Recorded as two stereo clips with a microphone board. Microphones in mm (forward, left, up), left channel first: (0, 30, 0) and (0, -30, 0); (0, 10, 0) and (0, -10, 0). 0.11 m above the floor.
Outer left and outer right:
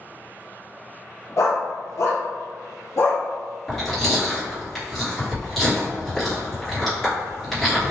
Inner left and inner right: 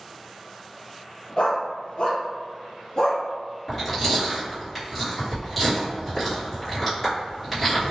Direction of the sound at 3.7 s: Centre (ahead or behind).